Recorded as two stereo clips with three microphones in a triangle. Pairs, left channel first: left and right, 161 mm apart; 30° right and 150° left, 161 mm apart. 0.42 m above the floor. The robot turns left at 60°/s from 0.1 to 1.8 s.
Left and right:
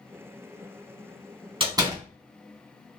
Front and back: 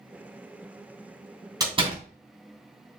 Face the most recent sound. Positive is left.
turn(degrees=-155)